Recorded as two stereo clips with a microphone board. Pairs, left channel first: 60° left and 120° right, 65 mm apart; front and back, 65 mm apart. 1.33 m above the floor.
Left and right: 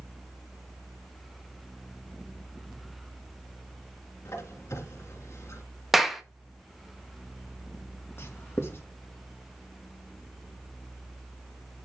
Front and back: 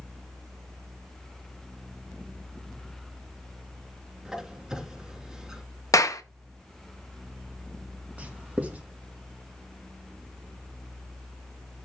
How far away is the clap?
About 1.2 m.